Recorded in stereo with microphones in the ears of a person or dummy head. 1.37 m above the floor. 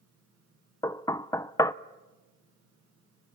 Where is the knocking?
20° left (ahead or behind), 0.6 m.